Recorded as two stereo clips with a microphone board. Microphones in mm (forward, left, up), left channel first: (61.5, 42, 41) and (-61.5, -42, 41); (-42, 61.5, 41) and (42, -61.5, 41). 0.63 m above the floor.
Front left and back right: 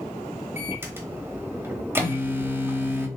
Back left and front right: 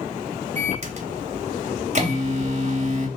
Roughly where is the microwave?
Right.